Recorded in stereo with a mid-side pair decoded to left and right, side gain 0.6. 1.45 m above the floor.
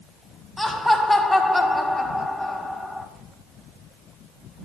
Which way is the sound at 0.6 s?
20° left.